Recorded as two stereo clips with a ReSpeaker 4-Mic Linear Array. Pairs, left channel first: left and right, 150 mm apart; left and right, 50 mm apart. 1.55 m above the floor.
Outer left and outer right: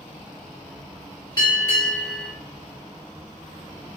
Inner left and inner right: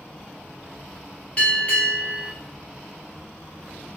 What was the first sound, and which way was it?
A bell, 30° left (ahead or behind).